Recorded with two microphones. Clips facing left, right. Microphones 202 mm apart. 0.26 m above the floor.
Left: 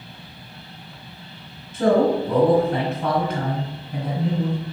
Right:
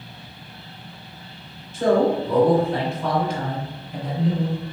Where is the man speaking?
55° left (ahead or behind), 1.9 m.